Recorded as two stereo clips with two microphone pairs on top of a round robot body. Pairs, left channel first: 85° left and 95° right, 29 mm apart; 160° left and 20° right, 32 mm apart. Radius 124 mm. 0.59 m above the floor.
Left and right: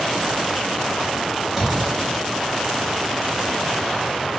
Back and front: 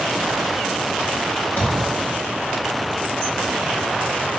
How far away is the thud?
About 1.8 m.